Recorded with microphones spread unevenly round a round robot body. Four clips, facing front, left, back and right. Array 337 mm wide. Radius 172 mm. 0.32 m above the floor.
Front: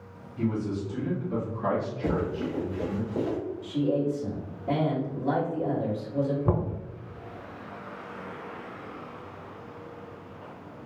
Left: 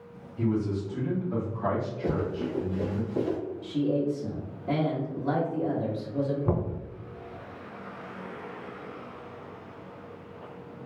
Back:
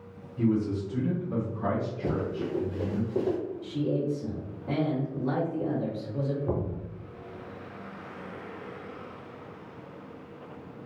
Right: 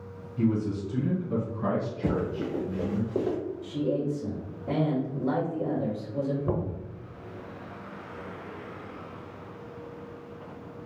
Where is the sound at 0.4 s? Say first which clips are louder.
Right 1 dB, back 3 dB; 90° right, 1.7 m; by 3.0 s 105° right, 3 m.